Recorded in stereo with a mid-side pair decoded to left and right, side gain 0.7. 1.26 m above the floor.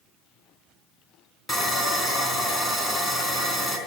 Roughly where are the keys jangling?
I don't hear keys jangling.